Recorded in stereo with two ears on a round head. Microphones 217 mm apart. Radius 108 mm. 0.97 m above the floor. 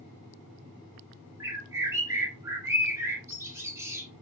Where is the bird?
10° right (ahead or behind), 3 m.